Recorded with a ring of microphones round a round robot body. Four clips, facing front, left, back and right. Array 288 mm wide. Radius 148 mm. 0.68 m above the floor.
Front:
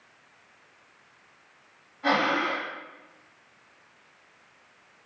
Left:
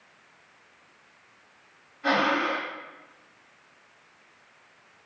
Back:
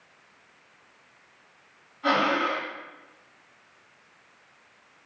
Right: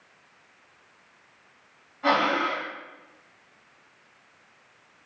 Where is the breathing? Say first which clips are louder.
Right 1 dB, back 1 dB; 80° right, 1.6 m.